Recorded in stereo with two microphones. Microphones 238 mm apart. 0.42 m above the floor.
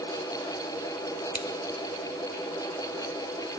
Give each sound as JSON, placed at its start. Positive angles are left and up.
{"t": 1.3, "sound": "scissors", "side_deg": 75, "distance_m": 0.8}